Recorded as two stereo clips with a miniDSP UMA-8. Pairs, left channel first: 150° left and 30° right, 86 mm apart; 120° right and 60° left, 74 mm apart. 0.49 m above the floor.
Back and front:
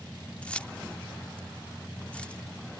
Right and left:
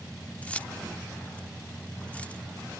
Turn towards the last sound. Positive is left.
turn(degrees=-155)